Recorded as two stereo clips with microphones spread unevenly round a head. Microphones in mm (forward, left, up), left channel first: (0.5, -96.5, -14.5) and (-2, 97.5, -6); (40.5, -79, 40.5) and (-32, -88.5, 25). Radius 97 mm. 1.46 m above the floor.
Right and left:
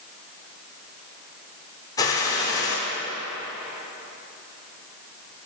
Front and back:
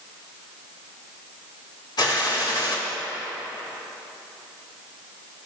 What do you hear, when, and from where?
2.0 s a gunshot: 15° right, 5.5 m